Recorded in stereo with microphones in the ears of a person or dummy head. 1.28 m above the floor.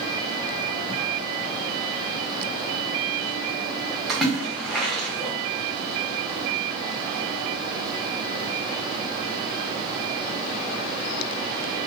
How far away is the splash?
About 0.7 m.